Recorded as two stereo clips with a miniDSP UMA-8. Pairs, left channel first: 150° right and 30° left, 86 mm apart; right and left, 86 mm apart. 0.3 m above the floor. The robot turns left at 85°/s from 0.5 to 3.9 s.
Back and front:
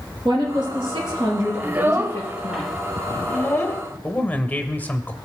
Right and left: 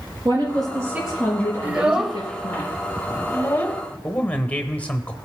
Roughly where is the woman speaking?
Ahead left.